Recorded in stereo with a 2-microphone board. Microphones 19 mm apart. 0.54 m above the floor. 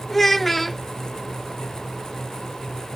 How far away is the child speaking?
About 0.7 m.